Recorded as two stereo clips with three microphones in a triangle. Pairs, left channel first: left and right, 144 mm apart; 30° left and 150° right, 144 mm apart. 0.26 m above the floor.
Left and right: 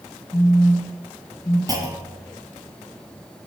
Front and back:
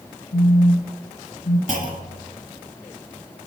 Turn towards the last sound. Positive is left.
turn(degrees=-150)